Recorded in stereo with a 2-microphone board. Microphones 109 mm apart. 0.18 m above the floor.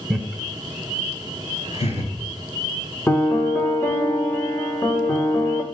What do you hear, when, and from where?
0.1 s laughter: 5° left (ahead or behind), 1.0 m; by 2.1 s 70° left (ahead or behind), 3 m
3.1 s a piano: 20° left (ahead or behind), 1.5 m